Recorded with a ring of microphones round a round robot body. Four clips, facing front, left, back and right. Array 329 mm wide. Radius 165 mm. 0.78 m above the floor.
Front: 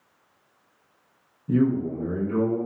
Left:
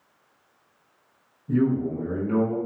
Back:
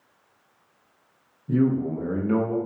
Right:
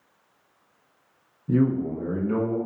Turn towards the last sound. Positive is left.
turn(degrees=180)